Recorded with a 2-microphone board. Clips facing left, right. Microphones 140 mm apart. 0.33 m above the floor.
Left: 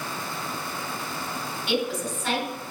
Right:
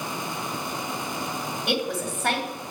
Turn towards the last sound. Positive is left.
turn(degrees=-55)  # may be behind; listen again after turning